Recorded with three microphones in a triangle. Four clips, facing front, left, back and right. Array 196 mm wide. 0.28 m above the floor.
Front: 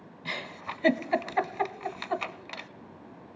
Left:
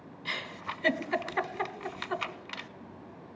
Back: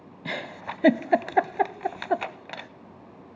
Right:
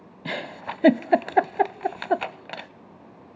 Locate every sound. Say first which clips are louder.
0.2 s a giggle: right 7 dB, back 4 dB; 115° right, 0.5 m